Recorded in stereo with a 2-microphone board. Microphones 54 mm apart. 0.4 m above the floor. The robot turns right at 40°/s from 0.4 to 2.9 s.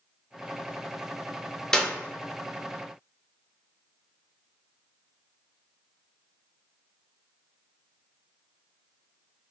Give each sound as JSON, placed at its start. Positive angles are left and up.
{"t": 1.7, "sound": "a clap", "side_deg": 10, "distance_m": 0.5}